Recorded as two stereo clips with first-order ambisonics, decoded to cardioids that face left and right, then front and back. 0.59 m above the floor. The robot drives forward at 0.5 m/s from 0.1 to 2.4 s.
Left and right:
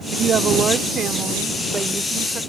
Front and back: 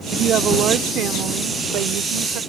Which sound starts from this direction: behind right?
A woman speaking, at 0.1 s.